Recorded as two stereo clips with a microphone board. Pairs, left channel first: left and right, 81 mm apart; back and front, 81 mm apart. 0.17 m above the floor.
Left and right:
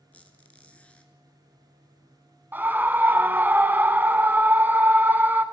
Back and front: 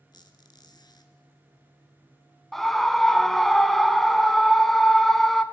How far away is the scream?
About 1.1 m.